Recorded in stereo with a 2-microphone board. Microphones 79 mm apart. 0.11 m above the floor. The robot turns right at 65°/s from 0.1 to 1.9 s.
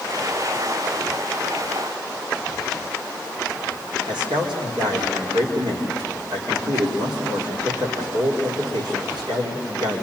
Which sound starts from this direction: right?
A man speaking, at 4.1 s.